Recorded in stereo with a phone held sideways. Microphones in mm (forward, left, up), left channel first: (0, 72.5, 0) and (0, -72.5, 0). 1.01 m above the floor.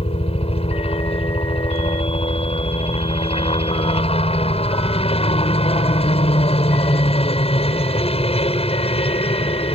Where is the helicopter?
40° left (ahead or behind).